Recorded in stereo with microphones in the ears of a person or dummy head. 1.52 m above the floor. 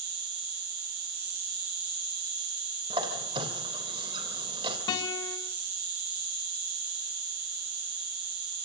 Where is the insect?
65° right (ahead or behind), 3.5 m.